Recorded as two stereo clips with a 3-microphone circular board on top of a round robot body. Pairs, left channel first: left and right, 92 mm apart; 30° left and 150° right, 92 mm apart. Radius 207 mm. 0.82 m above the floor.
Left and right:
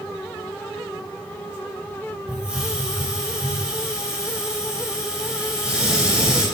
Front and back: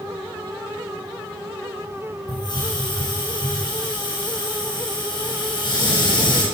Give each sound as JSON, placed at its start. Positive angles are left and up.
{"t": 2.3, "sound": "a hiss", "azimuth_deg": -10, "distance_m": 6.0}